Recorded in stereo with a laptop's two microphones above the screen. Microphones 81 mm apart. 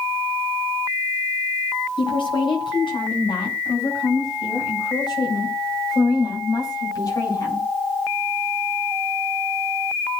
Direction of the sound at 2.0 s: 80° left.